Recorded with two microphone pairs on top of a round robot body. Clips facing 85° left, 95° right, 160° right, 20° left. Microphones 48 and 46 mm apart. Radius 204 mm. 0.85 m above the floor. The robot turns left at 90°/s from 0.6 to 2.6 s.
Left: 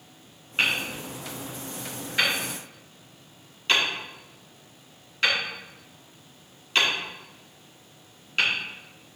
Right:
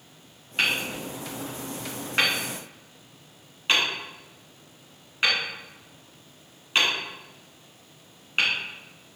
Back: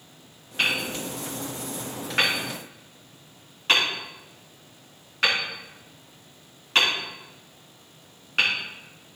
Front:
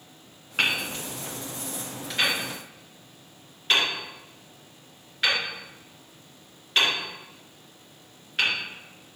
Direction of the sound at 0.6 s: 15° left.